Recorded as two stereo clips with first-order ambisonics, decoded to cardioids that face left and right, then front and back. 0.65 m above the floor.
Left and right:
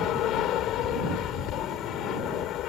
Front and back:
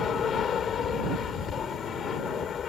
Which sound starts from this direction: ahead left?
An aircraft, at 0.0 s.